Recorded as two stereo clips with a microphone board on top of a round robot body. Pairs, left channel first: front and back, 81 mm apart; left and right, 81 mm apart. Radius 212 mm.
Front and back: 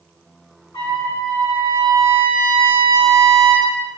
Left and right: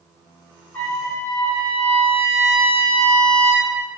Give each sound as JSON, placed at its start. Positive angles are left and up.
{"t": 0.7, "sound": "a trumpet", "azimuth_deg": 25, "distance_m": 1.8}